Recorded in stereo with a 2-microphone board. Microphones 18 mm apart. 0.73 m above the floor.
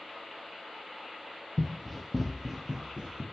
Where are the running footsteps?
20° left (ahead or behind), 1.1 m; by 3.2 s 45° right (ahead or behind), 1.9 m.